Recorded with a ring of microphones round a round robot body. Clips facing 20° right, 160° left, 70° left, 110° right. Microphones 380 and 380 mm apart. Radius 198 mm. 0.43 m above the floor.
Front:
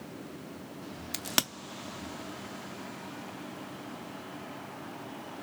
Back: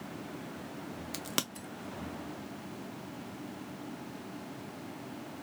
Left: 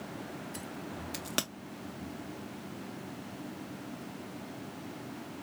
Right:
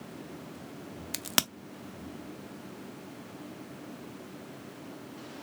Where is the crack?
85° right, 0.6 m.